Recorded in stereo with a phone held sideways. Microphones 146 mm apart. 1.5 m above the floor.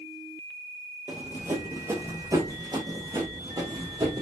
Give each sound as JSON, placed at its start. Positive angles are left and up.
{"t": 1.1, "sound": "running footsteps", "side_deg": -10, "distance_m": 1.6}